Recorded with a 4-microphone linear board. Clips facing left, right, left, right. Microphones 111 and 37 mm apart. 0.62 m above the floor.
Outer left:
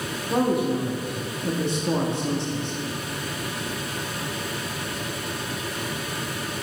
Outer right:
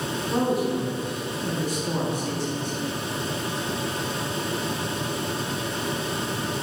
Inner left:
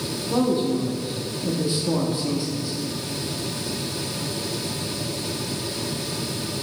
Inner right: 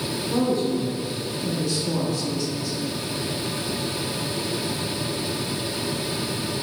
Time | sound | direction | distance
0.3 | a man speaking | 25° left (ahead or behind) | 1.0 m